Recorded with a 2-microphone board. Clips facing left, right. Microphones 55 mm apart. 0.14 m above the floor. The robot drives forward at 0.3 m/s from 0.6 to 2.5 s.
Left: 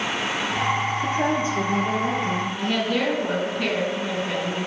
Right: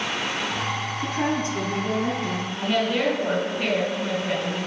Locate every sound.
1.0 s a woman speaking: 50° right (ahead or behind), 2.5 m; by 2.5 s 60° right (ahead or behind), 2.5 m
2.6 s a woman speaking: 10° right (ahead or behind), 1.9 m